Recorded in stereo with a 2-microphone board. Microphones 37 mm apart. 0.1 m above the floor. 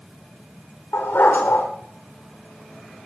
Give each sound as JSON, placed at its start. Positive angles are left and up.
{"t": 0.9, "sound": "a dog barking", "side_deg": 90, "distance_m": 10.0}